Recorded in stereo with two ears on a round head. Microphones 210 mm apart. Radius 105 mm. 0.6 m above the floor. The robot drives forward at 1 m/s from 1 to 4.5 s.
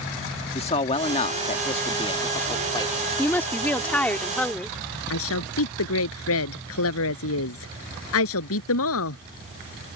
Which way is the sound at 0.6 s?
25° left (ahead or behind).